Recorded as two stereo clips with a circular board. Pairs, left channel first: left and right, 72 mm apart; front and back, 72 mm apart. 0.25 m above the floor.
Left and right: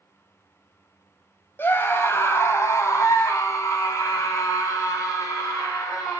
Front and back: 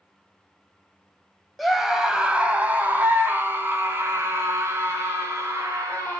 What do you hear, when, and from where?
1.6 s a scream: 90° left, 1.3 m; by 6.2 s 135° left, 4 m